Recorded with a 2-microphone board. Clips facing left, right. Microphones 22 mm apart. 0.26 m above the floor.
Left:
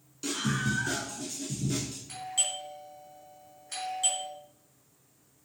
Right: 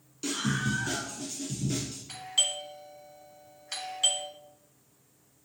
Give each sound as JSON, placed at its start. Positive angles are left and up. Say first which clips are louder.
{"t": 0.2, "sound": "a scream", "louder": "even", "side_deg": -10, "distance_m": 2.5}
{"t": 2.1, "sound": "a doorbell", "louder": "right 4 dB", "side_deg": -30, "distance_m": 3.5}